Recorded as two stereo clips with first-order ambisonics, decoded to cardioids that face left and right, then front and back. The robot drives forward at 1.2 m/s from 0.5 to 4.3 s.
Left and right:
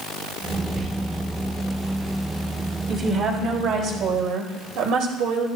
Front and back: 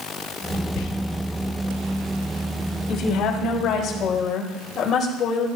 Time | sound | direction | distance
0.8 | whispering | 20° right | 5.5 m
2.9 | a woman speaking | 35° right | 3.5 m